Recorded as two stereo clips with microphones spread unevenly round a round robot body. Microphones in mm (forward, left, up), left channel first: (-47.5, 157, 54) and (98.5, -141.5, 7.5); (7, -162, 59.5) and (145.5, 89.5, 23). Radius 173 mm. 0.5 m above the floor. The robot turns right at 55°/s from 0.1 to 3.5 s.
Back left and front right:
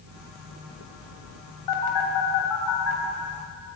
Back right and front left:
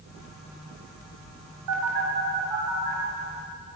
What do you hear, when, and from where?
1.7 s a phone buzzing: 90° left, 3 m; by 3.0 s 165° left, 3 m